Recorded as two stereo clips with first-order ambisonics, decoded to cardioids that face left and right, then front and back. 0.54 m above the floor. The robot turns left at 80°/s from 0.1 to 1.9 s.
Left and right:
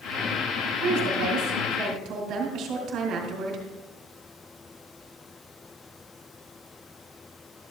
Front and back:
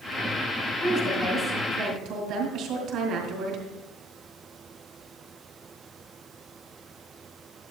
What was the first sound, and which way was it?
A woman speaking, 50° right.